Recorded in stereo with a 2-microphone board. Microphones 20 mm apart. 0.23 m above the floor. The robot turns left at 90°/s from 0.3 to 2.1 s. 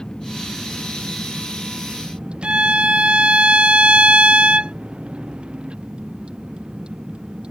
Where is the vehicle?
35° left (ahead or behind); by 7.5 s 55° right (ahead or behind).